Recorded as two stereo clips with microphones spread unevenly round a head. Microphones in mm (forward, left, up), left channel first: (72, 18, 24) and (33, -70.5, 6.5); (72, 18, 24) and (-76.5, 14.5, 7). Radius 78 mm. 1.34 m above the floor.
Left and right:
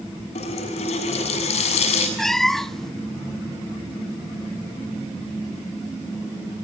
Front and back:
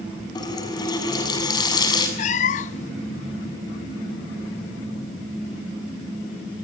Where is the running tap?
65° left, 7 m.